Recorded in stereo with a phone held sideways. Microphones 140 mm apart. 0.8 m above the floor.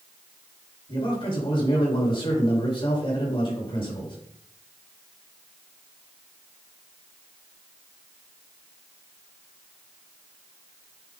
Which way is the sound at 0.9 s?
40° left (ahead or behind).